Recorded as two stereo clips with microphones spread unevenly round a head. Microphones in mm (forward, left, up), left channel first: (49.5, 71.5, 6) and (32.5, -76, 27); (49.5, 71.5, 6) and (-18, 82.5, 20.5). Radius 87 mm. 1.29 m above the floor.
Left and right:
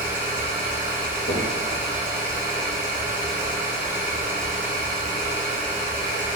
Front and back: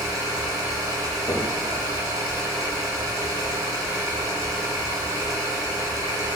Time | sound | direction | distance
0.0 | an engine running | 165° right | 0.9 m
1.3 | knocking | 60° left | 1.1 m